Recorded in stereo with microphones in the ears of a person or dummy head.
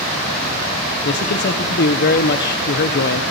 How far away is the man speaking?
About 1.3 m.